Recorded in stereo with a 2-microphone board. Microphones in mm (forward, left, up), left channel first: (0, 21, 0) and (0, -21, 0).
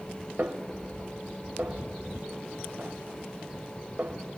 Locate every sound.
0.4 s a snare drum: 45° right (ahead or behind), 1.1 m